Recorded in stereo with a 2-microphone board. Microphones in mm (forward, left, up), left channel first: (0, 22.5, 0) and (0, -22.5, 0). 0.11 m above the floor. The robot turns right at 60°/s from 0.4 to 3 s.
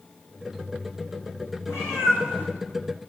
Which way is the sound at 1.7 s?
80° left.